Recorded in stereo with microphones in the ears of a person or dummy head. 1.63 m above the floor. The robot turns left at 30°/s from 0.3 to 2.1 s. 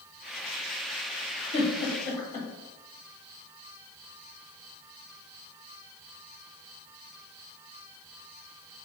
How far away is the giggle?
About 1.2 m.